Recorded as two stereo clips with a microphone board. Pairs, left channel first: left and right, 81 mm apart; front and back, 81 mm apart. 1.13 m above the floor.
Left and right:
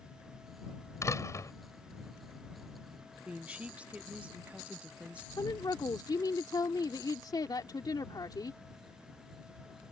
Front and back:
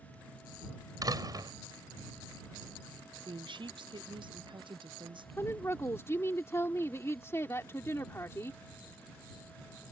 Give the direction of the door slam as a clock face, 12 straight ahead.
7 o'clock.